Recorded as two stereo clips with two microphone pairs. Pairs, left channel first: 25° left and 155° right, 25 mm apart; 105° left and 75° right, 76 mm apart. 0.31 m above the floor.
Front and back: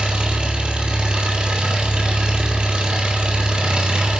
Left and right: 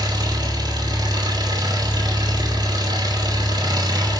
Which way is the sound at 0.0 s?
105° right.